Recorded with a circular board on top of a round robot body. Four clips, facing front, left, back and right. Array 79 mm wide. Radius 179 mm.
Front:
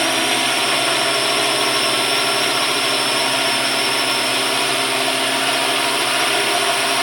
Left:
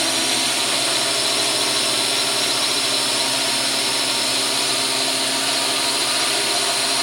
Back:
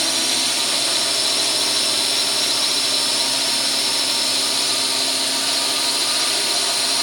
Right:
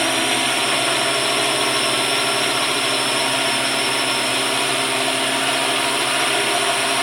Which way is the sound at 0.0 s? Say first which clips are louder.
Right 4 dB, front 7 dB; 25° right.